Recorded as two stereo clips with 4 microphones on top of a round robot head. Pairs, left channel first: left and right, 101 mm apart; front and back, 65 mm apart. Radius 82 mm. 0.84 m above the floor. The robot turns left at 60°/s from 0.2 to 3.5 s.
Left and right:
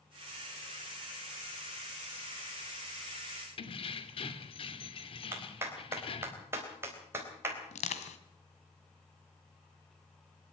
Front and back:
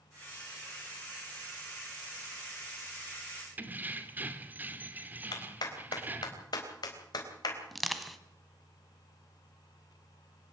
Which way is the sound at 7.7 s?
90° left.